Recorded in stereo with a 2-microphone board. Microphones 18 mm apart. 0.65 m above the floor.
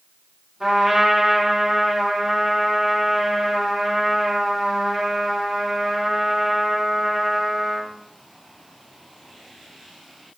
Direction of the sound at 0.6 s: 25° right (ahead or behind).